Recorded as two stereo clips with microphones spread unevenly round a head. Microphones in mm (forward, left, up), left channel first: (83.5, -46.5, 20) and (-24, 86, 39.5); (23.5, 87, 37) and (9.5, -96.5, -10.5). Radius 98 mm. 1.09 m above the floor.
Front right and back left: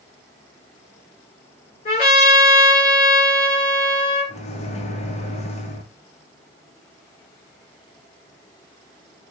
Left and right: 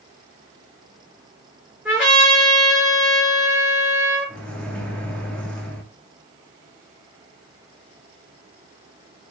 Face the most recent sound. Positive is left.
turn(degrees=-5)